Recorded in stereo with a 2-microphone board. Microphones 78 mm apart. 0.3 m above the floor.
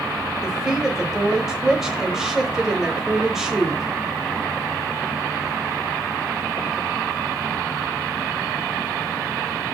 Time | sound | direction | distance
0.4 | a woman speaking | 5° right (ahead or behind) | 1.0 m